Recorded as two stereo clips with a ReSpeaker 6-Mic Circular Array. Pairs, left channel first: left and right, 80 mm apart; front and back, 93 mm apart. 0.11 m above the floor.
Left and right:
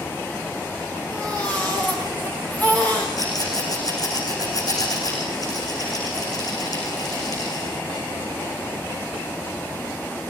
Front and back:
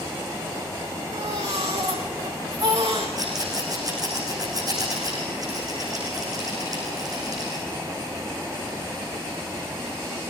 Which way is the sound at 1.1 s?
160° left.